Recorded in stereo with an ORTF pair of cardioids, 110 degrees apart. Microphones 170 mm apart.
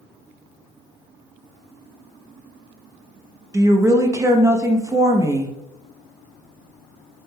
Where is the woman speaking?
20° right, 0.6 m.